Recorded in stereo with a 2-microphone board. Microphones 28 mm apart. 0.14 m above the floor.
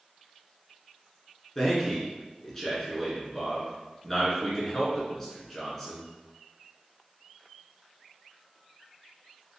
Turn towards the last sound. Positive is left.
turn(degrees=15)  # may be behind; listen again after turning